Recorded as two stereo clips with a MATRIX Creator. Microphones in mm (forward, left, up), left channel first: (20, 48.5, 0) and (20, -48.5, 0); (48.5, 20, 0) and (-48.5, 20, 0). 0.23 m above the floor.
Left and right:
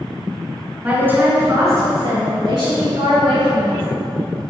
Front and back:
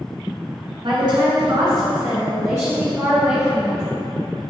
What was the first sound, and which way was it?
A woman speaking, 160° right.